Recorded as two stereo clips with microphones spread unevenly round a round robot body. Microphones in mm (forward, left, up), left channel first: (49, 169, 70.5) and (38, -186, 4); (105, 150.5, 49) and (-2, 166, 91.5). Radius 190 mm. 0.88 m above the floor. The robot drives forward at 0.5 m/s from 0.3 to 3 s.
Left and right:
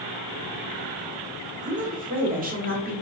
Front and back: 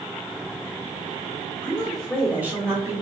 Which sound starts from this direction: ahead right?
A woman speaking, at 1.6 s.